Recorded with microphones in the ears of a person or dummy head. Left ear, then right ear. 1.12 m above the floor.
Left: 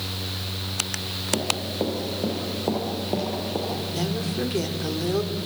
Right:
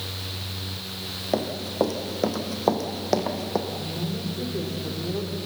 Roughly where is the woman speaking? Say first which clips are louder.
Left 3 dB; left.